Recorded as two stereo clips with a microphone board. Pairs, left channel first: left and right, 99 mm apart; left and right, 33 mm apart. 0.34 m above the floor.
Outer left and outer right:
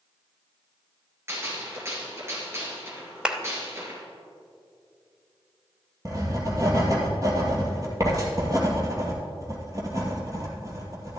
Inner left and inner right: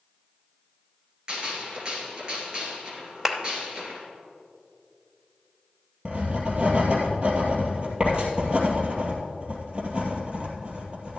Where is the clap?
10° right (ahead or behind), 0.9 m.